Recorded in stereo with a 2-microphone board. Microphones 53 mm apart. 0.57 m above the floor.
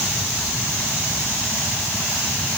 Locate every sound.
Only background noise.